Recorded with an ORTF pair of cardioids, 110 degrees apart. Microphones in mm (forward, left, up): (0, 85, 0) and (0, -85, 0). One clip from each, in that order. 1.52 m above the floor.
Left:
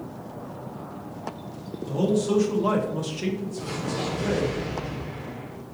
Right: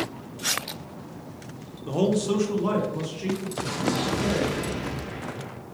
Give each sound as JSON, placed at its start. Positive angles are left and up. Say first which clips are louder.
{"t": 1.8, "sound": "a man speaking", "louder": "even", "azimuth_deg": -40, "distance_m": 0.6}
{"t": 3.6, "sound": "an explosion", "louder": "right 3 dB", "azimuth_deg": -40, "distance_m": 0.5}